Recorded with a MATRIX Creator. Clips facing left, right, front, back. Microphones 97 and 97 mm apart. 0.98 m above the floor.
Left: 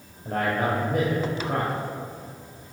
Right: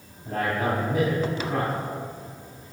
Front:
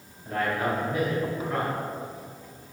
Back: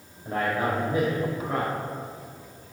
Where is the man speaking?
115° left, 6 m.